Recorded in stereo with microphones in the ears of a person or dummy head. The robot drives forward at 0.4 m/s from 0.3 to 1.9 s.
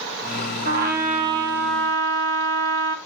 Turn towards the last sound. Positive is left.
turn(degrees=-55)  # may be behind; listen again after turning